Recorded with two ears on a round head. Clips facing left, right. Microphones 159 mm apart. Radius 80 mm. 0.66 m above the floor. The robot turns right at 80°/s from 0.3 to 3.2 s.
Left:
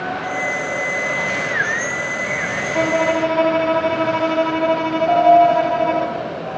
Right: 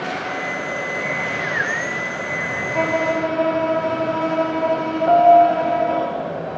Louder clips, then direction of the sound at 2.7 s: Left 3 dB; 40° left.